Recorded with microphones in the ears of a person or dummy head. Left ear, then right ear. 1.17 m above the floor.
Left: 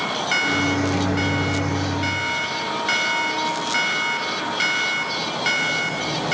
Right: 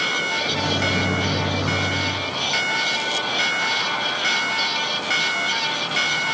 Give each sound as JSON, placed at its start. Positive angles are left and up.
{"t": 0.4, "sound": "a microwave", "side_deg": 25, "distance_m": 2.0}